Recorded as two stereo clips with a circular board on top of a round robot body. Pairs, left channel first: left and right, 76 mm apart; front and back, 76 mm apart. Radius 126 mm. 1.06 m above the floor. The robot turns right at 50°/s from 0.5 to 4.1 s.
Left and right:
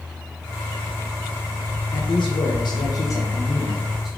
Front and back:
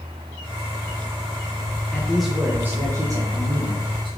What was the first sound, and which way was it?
A man speaking, 80° left.